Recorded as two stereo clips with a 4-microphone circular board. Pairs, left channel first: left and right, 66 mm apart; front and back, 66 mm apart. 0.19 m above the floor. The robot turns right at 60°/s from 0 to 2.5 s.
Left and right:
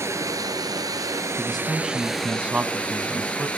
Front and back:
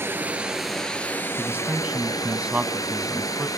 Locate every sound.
0.0 s running water: 130° right, 2.5 m; by 3.6 s 20° left, 2.5 m
1.4 s a man speaking: 165° left, 1.2 m; by 3.5 s 125° right, 1.2 m